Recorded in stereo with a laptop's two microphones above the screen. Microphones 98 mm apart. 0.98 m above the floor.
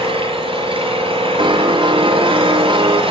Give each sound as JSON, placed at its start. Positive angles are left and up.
{"t": 0.0, "sound": "an engine running", "side_deg": -70, "distance_m": 6.0}
{"t": 1.4, "sound": "a piano", "side_deg": -50, "distance_m": 1.1}